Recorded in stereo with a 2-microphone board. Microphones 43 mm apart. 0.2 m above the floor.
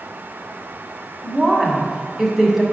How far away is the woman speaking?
About 1.5 m.